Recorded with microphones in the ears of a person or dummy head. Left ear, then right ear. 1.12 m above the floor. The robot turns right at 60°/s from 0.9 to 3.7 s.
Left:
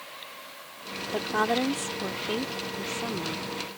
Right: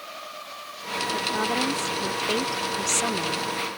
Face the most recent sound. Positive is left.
turn(degrees=-70)